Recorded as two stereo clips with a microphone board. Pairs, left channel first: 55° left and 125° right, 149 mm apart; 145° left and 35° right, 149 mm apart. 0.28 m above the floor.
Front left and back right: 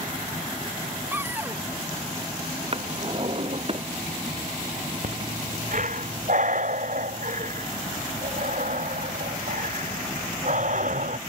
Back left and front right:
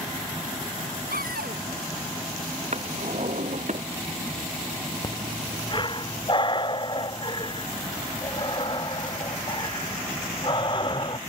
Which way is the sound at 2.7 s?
75° right.